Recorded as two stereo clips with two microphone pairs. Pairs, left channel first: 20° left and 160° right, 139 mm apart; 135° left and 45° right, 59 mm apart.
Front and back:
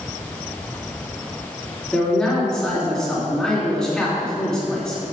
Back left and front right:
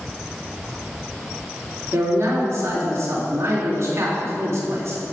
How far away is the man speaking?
About 2.5 m.